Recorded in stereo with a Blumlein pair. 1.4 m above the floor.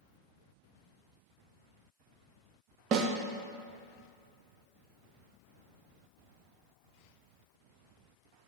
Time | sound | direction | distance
2.9 | a snare drum | 35° right | 0.6 m